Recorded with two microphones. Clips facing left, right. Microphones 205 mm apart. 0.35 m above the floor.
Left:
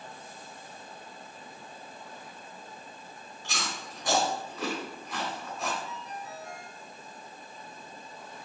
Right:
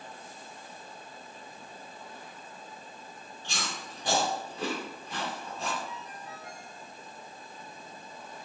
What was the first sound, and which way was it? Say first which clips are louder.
Chewing: left 1 dB; 30° right (ahead or behind).